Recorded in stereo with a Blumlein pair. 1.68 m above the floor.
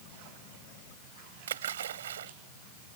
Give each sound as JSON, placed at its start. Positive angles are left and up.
{"t": 1.5, "sound": "a splash", "azimuth_deg": -65}